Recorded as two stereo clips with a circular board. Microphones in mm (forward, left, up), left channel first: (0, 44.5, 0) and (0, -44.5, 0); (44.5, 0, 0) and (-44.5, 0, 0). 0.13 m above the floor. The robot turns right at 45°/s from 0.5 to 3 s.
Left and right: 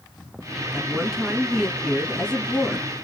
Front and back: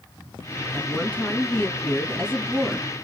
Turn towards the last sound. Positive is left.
turn(degrees=85)